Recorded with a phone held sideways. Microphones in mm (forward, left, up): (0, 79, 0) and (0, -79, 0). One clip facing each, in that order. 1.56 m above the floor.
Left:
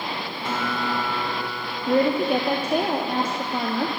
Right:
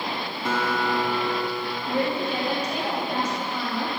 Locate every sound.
0.5 s a guitar: 65° right (ahead or behind), 1.9 m
1.9 s a woman speaking: 55° left (ahead or behind), 0.6 m